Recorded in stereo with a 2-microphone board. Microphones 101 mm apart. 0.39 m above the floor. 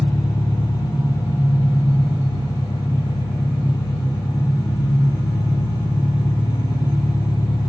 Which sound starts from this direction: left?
An engine running, at 0.0 s.